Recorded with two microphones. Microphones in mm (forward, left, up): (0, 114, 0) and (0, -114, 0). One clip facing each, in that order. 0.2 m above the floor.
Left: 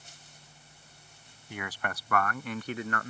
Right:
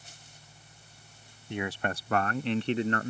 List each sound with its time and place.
1.5 s a man speaking: 25° right (ahead or behind); by 3.1 s 30° right (ahead or behind)